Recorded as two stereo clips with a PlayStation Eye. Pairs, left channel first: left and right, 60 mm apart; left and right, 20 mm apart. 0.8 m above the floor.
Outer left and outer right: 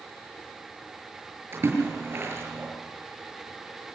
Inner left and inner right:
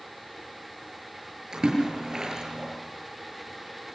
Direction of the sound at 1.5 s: 45° right (ahead or behind).